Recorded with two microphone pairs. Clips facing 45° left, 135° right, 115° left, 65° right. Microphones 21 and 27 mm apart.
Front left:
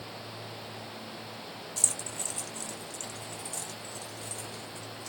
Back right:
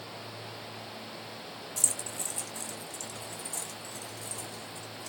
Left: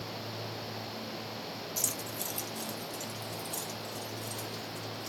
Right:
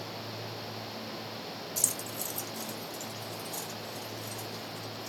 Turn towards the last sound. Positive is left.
turn(degrees=120)